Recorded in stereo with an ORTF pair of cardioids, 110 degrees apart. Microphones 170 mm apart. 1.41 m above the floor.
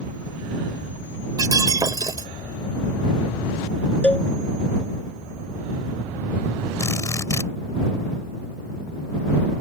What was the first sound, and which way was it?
Breaking glass, 20° right.